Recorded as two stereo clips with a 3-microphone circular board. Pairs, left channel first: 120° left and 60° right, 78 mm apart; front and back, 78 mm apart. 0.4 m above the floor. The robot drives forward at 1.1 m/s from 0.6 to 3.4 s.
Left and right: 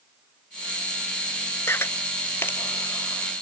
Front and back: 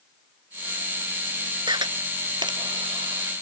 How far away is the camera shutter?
About 0.9 m.